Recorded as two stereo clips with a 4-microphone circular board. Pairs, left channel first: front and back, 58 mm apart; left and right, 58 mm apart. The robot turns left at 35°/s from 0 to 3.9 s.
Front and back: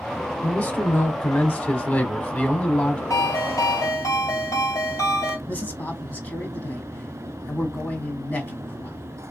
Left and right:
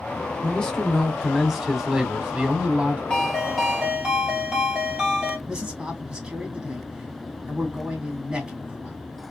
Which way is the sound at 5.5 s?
25° right.